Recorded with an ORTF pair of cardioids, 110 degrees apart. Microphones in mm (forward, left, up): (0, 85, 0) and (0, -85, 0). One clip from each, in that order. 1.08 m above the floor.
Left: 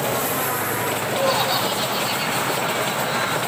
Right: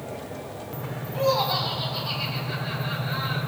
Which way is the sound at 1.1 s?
25° left.